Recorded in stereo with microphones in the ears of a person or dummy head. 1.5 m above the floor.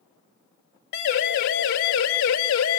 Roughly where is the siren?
Left.